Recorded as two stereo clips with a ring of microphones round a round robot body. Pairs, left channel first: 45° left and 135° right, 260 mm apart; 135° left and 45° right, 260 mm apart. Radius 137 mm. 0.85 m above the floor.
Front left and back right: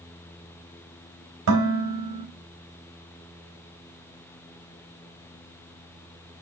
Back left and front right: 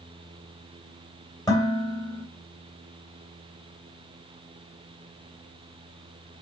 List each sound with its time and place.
1.5 s dishes clattering: 150° right, 3 m